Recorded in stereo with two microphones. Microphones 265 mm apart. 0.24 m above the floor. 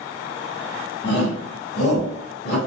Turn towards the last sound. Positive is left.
turn(degrees=60)  # may be behind; listen again after turning